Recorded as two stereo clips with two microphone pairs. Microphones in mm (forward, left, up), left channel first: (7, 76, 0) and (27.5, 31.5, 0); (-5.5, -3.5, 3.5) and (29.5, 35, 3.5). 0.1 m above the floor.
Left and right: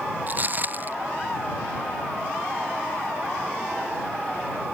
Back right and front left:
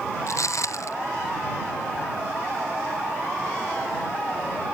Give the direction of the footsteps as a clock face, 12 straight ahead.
4 o'clock.